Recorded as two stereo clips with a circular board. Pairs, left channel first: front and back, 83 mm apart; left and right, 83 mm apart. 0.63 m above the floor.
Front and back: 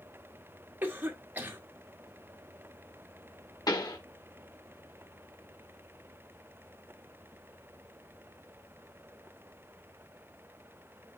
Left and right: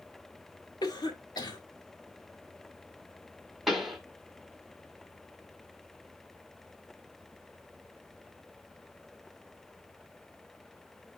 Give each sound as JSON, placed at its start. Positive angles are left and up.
{"t": 0.8, "sound": "a cough", "azimuth_deg": 115, "distance_m": 1.9}
{"t": 3.7, "sound": "a pop", "azimuth_deg": 0, "distance_m": 1.3}